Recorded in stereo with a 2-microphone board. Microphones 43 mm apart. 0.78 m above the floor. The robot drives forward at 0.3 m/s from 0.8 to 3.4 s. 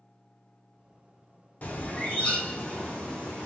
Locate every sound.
1.6 s a bird: 40° left (ahead or behind), 0.6 m; by 3.5 s 20° left (ahead or behind), 1.1 m